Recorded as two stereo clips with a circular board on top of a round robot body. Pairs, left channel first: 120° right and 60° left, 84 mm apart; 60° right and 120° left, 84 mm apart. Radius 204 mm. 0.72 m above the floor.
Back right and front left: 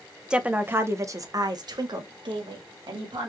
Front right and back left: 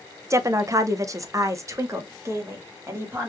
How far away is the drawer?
I don't hear a drawer.